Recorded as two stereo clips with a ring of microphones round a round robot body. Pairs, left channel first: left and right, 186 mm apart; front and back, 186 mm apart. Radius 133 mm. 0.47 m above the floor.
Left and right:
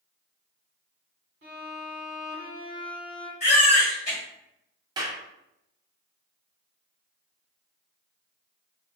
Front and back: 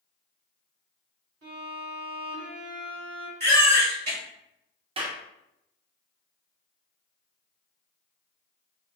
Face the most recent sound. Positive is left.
turn(degrees=-145)